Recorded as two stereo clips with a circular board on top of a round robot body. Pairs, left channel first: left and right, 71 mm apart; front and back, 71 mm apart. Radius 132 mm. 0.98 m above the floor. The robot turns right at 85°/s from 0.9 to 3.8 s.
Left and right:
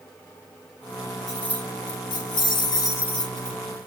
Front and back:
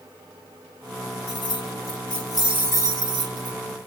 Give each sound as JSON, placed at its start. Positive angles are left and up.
{"t": 1.3, "sound": "keys jangling", "azimuth_deg": 0, "distance_m": 1.2}